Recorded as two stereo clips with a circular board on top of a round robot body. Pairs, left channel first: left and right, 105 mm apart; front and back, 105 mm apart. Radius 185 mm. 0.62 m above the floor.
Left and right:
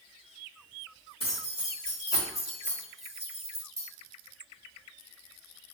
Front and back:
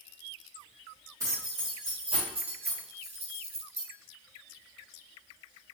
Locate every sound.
1.2 s keys jangling: 120° left, 1.8 m; by 3.9 s 150° right, 1.5 m